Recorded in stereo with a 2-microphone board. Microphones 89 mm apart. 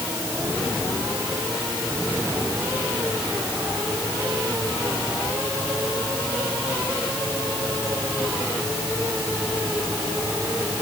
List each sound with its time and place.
Only background noise.